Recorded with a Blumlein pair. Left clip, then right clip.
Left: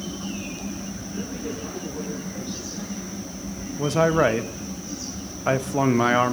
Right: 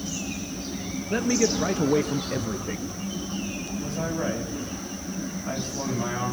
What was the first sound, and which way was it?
A man speaking, 45° right.